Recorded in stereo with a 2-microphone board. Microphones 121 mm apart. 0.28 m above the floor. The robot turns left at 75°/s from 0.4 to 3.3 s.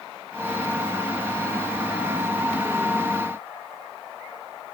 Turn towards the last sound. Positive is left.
No sound to turn to.